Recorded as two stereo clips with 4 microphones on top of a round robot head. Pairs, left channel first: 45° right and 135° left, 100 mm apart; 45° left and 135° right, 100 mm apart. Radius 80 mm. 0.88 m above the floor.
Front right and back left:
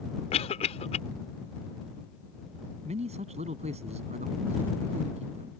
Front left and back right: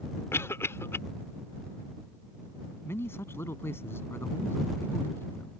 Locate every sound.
0.3 s a cough: 20° right
2.9 s a man speaking: 115° left